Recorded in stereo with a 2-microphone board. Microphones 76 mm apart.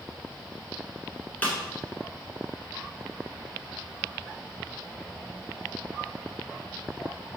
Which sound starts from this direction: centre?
A snare drum, at 1.4 s.